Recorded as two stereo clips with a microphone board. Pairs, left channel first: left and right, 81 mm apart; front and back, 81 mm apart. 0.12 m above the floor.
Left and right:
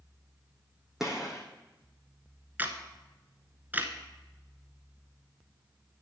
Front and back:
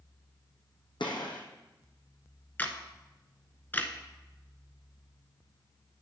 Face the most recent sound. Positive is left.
turn(degrees=-45)